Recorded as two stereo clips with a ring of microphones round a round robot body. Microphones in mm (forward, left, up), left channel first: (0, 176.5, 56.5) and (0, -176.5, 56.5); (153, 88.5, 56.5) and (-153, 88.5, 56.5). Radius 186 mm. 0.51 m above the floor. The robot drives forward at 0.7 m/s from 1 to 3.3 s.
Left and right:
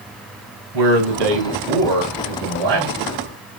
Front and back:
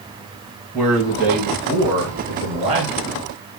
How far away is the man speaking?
About 4.5 m.